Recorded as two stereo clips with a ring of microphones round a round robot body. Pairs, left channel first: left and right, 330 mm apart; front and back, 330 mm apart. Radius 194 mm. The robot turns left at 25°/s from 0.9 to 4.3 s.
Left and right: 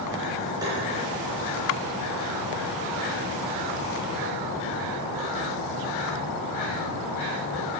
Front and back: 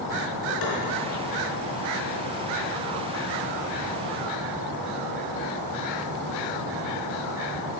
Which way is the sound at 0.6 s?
10° right.